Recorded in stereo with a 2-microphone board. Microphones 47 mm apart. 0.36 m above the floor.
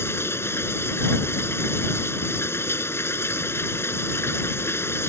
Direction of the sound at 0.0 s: 65° left (ahead or behind).